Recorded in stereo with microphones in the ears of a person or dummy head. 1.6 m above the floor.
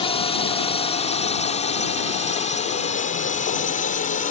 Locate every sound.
0.0 s a drone: 35° left (ahead or behind); by 4.3 s 45° left (ahead or behind)